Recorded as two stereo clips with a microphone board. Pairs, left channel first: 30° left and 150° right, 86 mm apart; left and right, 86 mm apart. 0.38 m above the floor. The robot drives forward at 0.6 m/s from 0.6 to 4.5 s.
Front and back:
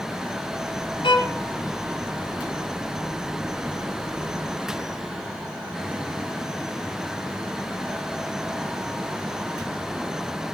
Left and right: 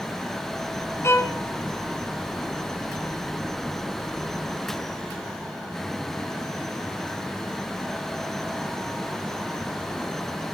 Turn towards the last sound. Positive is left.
turn(degrees=115)